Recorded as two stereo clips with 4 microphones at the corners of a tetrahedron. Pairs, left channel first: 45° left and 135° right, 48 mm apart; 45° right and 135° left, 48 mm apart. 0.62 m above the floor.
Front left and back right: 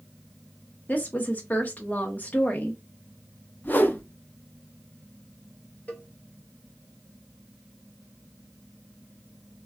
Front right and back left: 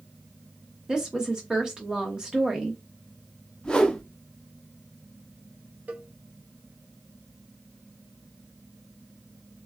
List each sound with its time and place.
0.9 s a woman speaking: 70° left, 0.7 m
3.6 s a whoosh: 15° left, 0.5 m
5.9 s a cowbell: 95° left, 1.4 m